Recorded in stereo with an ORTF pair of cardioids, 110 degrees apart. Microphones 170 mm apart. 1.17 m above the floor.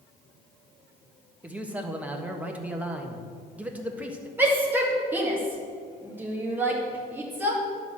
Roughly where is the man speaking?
Ahead.